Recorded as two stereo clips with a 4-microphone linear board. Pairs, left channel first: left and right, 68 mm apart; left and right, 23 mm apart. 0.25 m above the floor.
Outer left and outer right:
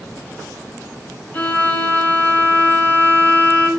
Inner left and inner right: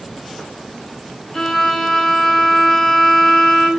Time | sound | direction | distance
1.3 | a violin | 25° left (ahead or behind) | 0.9 m